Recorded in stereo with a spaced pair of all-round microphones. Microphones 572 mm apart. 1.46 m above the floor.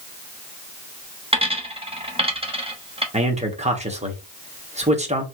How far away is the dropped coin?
About 0.9 m.